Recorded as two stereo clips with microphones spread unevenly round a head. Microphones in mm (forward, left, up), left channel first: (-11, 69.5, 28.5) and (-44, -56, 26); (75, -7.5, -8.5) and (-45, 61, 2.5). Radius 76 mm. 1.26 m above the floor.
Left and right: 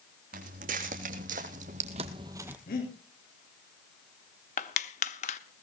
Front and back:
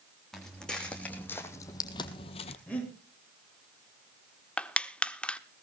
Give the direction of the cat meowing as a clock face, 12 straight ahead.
No cat meowing in this recording.